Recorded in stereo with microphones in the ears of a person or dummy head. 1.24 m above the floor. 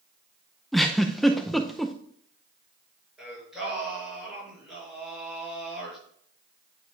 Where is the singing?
5° right (ahead or behind), 4.5 m.